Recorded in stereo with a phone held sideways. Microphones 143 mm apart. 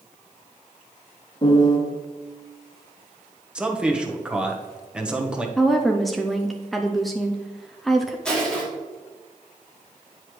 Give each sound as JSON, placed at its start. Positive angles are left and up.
{"t": 1.4, "sound": "a piano", "side_deg": 30, "distance_m": 2.5}
{"t": 3.5, "sound": "a man speaking", "side_deg": -5, "distance_m": 1.1}
{"t": 5.6, "sound": "a woman speaking", "side_deg": 0, "distance_m": 0.6}
{"t": 8.2, "sound": "crushing", "side_deg": 5, "distance_m": 2.5}